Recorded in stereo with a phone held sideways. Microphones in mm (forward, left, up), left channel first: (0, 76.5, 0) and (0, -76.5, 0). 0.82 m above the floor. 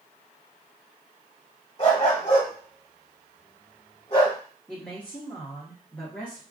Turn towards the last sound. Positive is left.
turn(degrees=10)  # may be behind; listen again after turning